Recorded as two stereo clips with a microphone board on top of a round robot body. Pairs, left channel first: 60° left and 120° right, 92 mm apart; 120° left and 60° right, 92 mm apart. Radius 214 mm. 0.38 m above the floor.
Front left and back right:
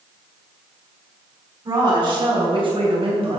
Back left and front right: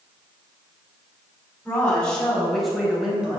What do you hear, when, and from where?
1.6 s a woman speaking: 165° right, 5 m; by 3.4 s 135° right, 4 m